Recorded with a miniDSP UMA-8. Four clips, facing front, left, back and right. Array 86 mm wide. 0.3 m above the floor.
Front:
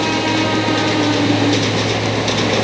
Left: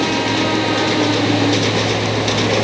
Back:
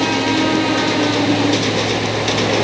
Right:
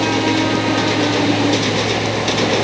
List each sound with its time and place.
Only background noise.